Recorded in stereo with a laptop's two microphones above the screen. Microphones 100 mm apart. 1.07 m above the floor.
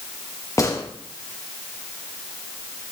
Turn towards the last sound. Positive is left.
turn(degrees=35)  # may be behind; listen again after turning